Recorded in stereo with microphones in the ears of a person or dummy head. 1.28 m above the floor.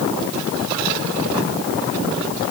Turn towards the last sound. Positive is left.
No sound to turn to.